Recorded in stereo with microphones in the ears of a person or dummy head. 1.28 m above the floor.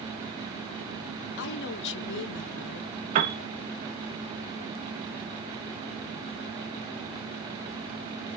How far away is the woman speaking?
About 0.6 m.